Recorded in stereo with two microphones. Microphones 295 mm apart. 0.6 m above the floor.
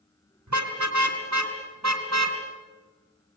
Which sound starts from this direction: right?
A car horn, at 0.5 s.